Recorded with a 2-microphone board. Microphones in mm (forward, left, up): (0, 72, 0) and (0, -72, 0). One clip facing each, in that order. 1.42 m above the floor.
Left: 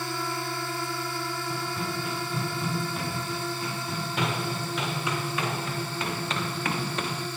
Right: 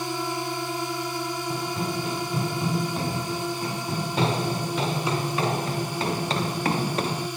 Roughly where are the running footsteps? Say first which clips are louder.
Right 4 dB; right.